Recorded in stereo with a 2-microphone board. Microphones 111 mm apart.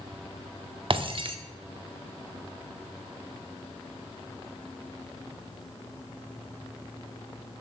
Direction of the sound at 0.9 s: 50° right (ahead or behind).